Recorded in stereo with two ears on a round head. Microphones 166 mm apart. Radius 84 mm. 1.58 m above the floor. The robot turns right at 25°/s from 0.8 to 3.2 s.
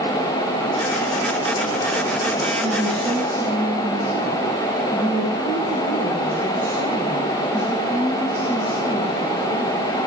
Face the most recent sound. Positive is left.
turn(degrees=-20)  # may be behind; listen again after turning